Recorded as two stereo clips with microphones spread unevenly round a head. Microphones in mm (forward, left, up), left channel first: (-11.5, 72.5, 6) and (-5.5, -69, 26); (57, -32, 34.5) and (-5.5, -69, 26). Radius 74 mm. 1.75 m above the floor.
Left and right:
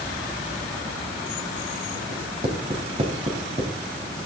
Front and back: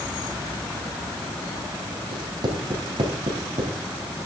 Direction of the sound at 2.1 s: 130° right.